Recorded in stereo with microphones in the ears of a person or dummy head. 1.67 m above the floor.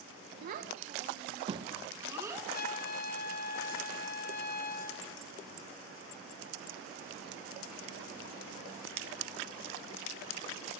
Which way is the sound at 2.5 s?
45° left (ahead or behind).